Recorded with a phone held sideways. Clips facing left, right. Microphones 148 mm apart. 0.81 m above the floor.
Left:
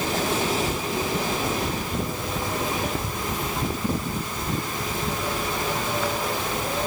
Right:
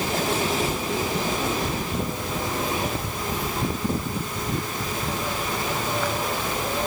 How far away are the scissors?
No scissors in this recording.